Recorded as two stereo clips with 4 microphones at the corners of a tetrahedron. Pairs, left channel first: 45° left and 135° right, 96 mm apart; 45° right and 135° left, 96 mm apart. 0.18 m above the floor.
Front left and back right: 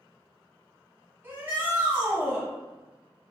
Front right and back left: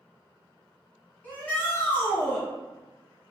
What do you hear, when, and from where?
1.2 s a shout: 100° right, 1.4 m